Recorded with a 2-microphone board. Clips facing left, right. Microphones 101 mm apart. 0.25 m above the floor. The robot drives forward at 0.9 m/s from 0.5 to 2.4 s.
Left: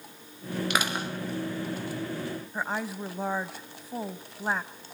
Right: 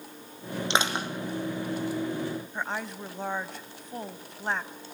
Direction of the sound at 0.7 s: 25° right (ahead or behind).